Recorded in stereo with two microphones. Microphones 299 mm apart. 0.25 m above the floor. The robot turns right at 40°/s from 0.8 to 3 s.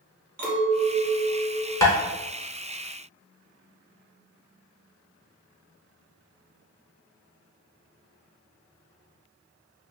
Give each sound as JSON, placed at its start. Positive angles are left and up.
{"t": 0.4, "sound": "a clink", "azimuth_deg": -75, "distance_m": 1.2}
{"t": 1.8, "sound": "tapping", "side_deg": 10, "distance_m": 0.8}